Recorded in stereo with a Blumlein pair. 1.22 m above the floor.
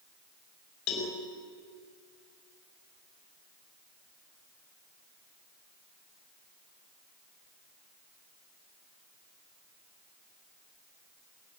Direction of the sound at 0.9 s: 40° left.